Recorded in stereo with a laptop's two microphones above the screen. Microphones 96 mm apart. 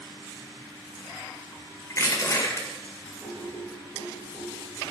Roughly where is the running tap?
No running tap in this recording.